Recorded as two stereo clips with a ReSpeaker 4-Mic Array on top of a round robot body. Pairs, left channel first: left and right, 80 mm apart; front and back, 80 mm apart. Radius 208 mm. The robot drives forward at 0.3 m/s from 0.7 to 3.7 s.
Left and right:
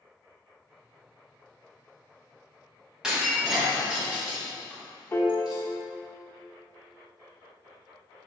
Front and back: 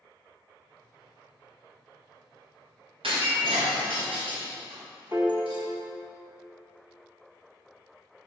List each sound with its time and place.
3.0 s breaking glass: 170° right, 1.5 m; by 5.6 s 175° right, 1.7 m
5.1 s a piano: 135° left, 1.1 m